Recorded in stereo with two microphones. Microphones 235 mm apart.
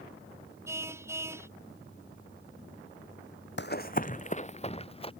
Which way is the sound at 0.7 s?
10° right (ahead or behind).